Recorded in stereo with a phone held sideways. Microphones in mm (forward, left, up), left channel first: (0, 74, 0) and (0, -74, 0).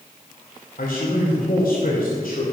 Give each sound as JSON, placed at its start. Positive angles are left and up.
{"t": 0.8, "sound": "a man speaking", "side_deg": 80, "distance_m": 3.0}